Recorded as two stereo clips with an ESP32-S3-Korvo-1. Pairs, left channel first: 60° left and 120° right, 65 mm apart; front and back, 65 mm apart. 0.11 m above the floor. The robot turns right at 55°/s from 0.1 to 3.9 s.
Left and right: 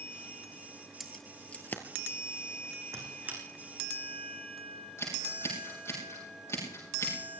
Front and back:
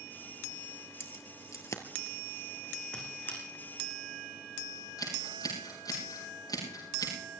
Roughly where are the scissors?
Ahead.